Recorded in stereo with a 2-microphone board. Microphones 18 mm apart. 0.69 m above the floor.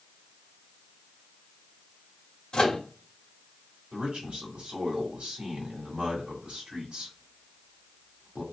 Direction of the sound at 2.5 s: 35° left (ahead or behind).